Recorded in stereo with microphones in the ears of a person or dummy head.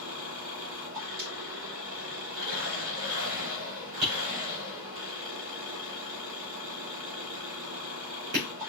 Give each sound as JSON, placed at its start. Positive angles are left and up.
{"t": 0.0, "sound": "an engine running", "side_deg": -70, "distance_m": 3.0}
{"t": 1.2, "sound": "breaking glass", "side_deg": -55, "distance_m": 2.5}
{"t": 4.0, "sound": "tapping", "side_deg": -60, "distance_m": 3.5}